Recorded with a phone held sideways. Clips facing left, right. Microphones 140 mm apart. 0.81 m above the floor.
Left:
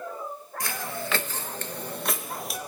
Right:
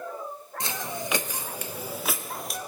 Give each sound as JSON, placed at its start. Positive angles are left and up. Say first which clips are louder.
{"t": 0.6, "sound": "footsteps", "louder": "even", "side_deg": -20, "distance_m": 0.8}